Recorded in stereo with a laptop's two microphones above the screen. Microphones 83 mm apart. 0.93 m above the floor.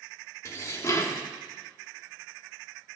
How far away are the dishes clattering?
About 1.0 m.